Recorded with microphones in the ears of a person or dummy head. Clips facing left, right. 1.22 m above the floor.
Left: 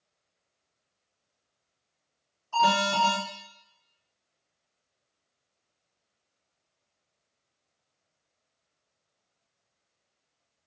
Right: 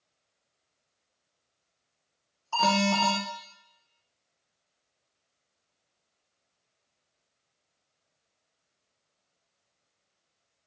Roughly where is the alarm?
Right.